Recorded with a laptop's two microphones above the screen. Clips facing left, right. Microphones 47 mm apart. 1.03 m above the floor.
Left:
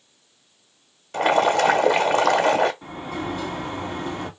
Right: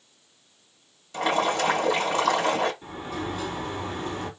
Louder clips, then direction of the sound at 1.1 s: Left 6 dB; 55° left (ahead or behind).